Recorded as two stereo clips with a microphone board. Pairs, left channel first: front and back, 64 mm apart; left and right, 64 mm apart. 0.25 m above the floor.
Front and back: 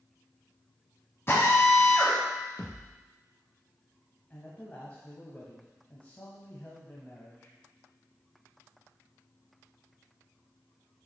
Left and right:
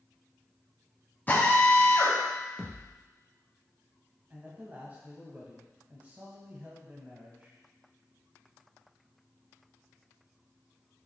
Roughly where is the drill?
Ahead left.